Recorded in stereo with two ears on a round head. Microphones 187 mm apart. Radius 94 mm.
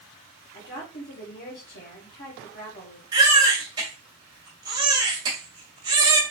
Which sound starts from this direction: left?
A woman speaking, at 0.5 s.